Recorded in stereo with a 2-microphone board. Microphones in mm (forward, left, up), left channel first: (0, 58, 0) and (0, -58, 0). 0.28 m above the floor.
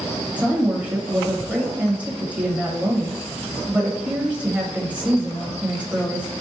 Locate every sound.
0.4 s a woman speaking: 10° right (ahead or behind), 0.9 m